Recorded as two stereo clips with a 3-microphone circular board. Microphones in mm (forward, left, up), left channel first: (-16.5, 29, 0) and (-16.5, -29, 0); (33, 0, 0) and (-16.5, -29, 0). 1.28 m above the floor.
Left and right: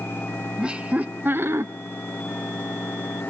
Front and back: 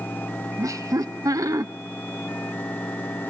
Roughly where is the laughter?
Behind.